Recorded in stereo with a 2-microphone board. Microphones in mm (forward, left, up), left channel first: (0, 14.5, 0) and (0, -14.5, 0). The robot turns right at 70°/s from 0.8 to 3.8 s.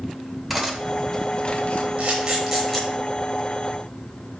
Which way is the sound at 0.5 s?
Centre (ahead or behind).